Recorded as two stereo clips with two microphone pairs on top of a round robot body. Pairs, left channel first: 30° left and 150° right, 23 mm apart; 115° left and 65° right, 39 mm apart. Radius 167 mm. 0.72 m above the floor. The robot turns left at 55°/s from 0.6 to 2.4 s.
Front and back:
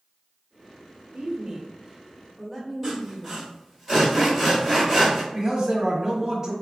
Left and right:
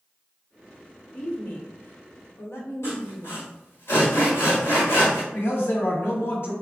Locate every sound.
1.1 s a woman speaking: 175° right, 1.4 m; by 3.4 s 115° left, 1.4 m
2.8 s sawing: 120° left, 1.2 m
5.3 s a man speaking: 135° left, 1.2 m